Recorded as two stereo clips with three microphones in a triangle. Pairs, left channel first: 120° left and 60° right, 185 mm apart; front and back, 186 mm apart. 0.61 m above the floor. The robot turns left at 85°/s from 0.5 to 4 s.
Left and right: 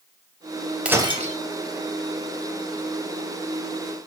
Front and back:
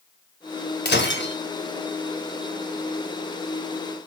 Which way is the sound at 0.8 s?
25° left.